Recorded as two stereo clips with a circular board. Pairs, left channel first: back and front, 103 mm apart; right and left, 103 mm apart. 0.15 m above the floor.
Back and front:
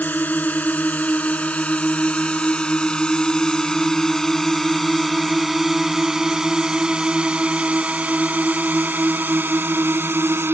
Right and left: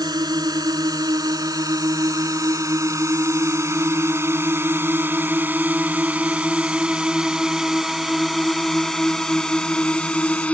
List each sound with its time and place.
0.0 s a drone: 115° left; by 10.5 s 30° right